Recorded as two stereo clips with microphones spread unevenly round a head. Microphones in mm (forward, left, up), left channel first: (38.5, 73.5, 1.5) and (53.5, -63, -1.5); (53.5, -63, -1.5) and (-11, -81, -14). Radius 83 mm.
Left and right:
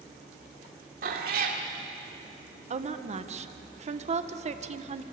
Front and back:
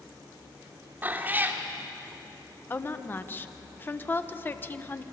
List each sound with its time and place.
1.0 s a cat meowing: 100° right, 2.5 m
2.7 s a woman speaking: 45° right, 1.5 m